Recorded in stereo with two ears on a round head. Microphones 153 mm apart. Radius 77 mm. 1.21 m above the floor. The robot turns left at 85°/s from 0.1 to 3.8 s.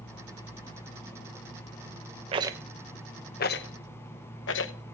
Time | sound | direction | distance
2.3 | a rattle | 35° right (ahead or behind) | 0.9 m